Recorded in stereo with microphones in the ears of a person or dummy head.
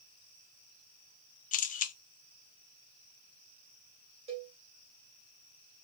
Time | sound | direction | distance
1.5 | a camera shutter | 40° left (ahead or behind) | 0.6 m
4.3 | a cowbell | 30° right (ahead or behind) | 2.5 m